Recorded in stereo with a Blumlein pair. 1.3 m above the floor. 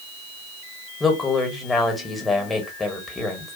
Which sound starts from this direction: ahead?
A woman speaking, at 1.0 s.